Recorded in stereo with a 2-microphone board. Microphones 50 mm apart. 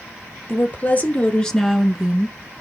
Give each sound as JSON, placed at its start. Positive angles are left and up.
{"t": 0.5, "sound": "a woman speaking", "side_deg": 35, "distance_m": 2.5}